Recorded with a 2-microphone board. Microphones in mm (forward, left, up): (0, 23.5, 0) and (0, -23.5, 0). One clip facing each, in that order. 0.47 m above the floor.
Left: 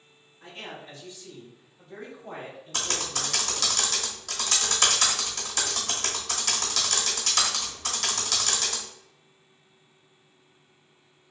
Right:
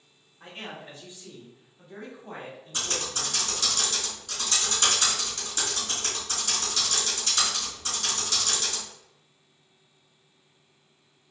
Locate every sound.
0.4 s a man speaking: 35° right (ahead or behind), 1.5 m; by 3.7 s 45° left (ahead or behind), 1.2 m
2.7 s typing on a keyboard: 70° left (ahead or behind), 0.8 m